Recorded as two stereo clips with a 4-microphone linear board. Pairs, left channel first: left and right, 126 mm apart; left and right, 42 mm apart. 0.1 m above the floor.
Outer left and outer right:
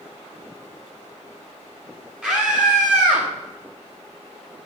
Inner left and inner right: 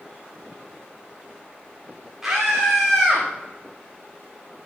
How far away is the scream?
About 6 m.